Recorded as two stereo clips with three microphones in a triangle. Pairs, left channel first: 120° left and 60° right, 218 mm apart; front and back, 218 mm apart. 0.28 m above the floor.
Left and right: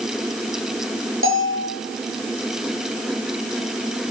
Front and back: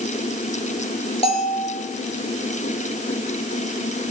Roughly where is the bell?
Ahead right.